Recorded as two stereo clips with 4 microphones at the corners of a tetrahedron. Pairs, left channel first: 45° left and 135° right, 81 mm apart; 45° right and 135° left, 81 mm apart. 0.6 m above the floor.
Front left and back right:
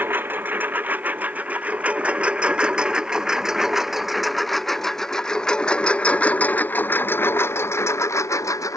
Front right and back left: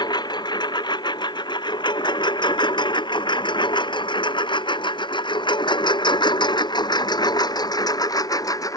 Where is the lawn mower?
70° right; by 8.8 s 5° right.